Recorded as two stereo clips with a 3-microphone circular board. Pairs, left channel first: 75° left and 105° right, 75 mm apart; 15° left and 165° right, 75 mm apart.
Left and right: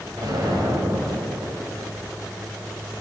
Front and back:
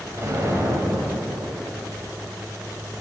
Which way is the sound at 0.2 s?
115° right.